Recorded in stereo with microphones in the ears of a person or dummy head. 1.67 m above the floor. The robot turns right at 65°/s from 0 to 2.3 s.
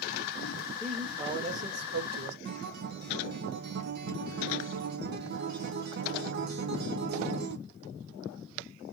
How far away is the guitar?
About 0.6 m.